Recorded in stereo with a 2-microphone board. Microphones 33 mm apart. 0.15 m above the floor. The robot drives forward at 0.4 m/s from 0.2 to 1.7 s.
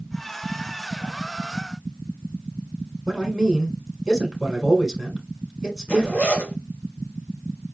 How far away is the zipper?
About 3 m.